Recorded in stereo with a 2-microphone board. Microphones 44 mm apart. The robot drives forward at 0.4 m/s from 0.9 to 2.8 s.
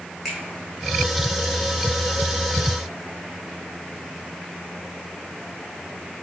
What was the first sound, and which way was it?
A finger snap, 5° left (ahead or behind).